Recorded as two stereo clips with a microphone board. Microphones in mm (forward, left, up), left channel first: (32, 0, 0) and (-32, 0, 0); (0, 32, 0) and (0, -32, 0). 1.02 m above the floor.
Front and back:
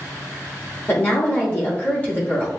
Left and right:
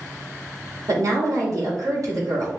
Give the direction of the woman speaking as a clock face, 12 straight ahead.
2 o'clock.